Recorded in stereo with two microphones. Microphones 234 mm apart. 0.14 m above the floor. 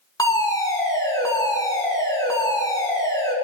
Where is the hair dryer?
No hair dryer in this recording.